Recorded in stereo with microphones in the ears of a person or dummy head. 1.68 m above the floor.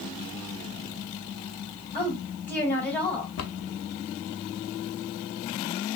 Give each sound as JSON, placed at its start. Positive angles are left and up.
{"t": 1.9, "sound": "a woman speaking", "side_deg": 10, "distance_m": 3.0}
{"t": 3.4, "sound": "a cupboard door", "side_deg": 70, "distance_m": 0.6}